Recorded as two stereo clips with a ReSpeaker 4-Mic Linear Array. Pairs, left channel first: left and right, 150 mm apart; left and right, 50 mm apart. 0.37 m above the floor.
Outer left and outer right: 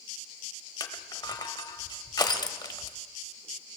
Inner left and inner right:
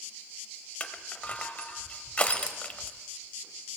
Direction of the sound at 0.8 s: 30° left (ahead or behind).